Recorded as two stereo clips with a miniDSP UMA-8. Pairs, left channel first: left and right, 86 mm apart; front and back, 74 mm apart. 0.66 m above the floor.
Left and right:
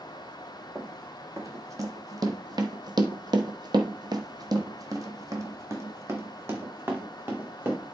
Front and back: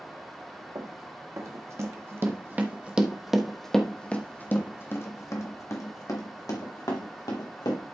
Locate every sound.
0.8 s running footsteps: 145° right, 1.8 m; by 7.8 s 25° right, 2.5 m